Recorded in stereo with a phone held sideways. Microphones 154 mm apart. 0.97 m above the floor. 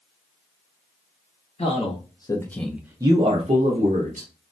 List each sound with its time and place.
1.6 s a man speaking: 45° left (ahead or behind), 0.9 m; by 4.3 s 60° right (ahead or behind), 1.1 m